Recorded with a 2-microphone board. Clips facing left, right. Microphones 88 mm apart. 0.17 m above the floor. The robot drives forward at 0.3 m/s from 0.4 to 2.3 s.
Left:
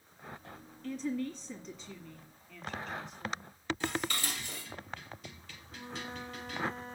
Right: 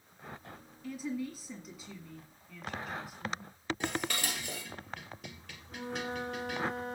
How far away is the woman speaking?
About 1.4 m.